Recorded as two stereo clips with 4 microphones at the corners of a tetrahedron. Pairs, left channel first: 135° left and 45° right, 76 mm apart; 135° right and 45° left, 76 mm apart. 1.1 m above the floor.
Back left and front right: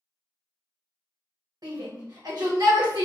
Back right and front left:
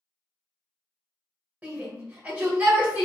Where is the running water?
No running water in this recording.